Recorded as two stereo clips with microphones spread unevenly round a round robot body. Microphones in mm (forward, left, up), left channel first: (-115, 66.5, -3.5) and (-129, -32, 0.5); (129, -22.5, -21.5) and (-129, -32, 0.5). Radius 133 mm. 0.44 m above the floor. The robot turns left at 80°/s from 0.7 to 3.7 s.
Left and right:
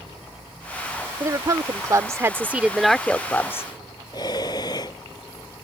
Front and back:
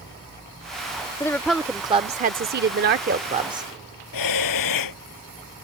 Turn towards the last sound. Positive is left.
turn(degrees=10)